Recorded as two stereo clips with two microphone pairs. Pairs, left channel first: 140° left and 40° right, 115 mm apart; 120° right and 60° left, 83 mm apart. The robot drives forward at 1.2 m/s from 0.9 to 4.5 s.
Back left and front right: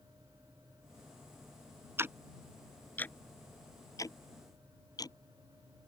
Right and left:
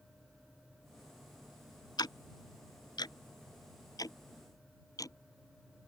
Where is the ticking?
105° right; by 5.2 s 165° right.